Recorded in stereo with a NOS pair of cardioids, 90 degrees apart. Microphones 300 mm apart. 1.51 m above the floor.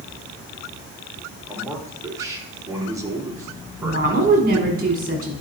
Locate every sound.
1.5 s a man speaking: 10° right, 3 m
3.8 s a woman speaking: 30° right, 4.5 m